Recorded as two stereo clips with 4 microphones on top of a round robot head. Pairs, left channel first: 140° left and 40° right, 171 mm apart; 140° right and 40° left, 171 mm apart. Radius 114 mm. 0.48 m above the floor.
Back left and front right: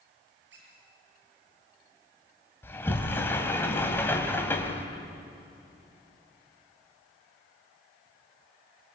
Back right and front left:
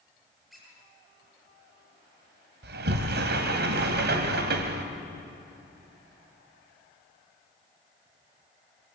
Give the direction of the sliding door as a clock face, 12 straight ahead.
10 o'clock.